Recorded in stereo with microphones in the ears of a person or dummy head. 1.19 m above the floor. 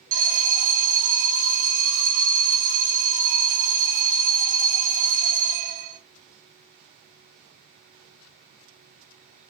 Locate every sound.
0.1 s an alarm: 45° right (ahead or behind), 1.8 m